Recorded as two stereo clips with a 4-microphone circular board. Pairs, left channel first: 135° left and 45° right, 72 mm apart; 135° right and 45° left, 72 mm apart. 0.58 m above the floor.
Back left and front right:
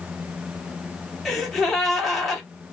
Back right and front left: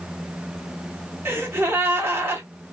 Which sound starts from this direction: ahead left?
A gasp, at 1.2 s.